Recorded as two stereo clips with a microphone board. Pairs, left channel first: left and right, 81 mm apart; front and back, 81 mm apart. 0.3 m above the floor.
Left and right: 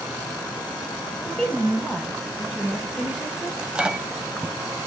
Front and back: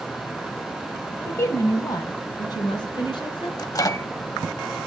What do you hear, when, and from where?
1.2 s a woman speaking: 20° left, 1.2 m; by 3.5 s 10° right, 4 m
3.6 s a microwave: 15° right, 1.0 m